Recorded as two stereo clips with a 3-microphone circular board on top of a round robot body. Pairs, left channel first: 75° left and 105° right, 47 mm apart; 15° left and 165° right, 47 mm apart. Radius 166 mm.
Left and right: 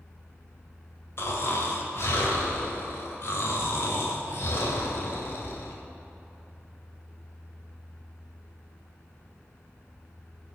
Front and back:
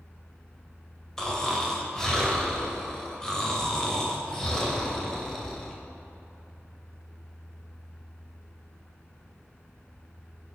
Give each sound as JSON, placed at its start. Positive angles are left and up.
{"t": 1.2, "sound": "snoring", "azimuth_deg": 95, "distance_m": 2.5}